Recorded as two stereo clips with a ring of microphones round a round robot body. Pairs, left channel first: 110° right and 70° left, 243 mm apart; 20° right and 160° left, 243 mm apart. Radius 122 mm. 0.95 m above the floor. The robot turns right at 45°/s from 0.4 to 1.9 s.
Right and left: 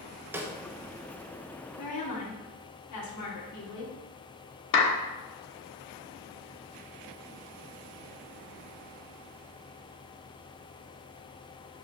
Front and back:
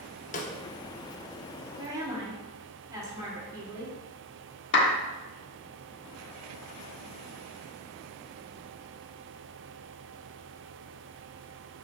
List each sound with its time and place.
0.3 s a snare drum: 5° right, 0.9 m; by 0.5 s straight ahead, 0.9 m
1.8 s a woman speaking: 130° right, 2.5 m; by 3.9 s 125° right, 2.5 m
4.7 s a clap: 70° right, 1.1 m